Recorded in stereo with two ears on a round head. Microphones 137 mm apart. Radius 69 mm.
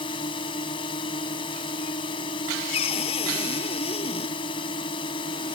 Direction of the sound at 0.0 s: 30° left (ahead or behind).